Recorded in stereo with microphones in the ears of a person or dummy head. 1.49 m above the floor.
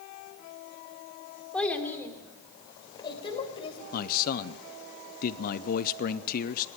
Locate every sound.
1.5 s a child speaking: 5° left (ahead or behind), 2 m; by 3.8 s 30° left (ahead or behind), 4 m
3.9 s a man speaking: 45° left (ahead or behind), 0.6 m